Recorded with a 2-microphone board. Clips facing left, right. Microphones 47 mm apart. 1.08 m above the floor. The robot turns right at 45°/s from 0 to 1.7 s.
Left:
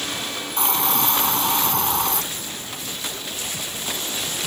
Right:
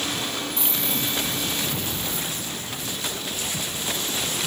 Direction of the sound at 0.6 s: 50° left.